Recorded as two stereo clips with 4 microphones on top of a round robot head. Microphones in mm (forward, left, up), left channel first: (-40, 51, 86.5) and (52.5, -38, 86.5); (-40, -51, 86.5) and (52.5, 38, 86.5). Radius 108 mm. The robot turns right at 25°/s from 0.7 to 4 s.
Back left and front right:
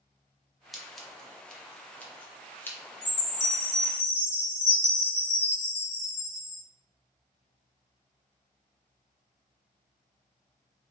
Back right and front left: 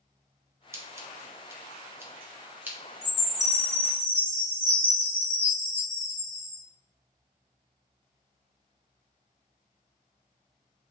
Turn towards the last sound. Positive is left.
turn(degrees=180)